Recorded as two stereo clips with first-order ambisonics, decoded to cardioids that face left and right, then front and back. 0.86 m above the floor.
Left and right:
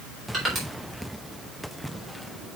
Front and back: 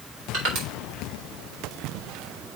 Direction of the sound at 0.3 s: 150° right.